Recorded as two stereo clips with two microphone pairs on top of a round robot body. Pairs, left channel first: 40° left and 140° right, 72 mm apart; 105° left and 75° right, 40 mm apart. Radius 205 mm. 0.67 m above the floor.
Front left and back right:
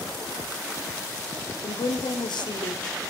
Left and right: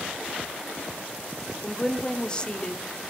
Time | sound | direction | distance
1.6 | a woman speaking | 40° left | 2 m